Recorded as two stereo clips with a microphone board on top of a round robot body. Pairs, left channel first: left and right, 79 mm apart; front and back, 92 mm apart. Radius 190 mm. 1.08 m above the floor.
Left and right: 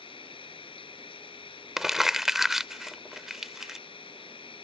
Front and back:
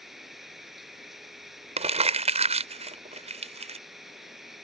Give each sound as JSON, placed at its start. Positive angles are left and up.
{"t": 0.0, "sound": "running water", "azimuth_deg": 95}
{"t": 1.8, "sound": "crumpling", "azimuth_deg": -175}